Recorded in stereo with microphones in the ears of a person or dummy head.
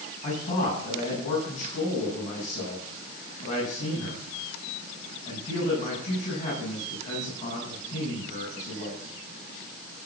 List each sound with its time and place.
0.2 s a man speaking: 35° left (ahead or behind), 9.5 m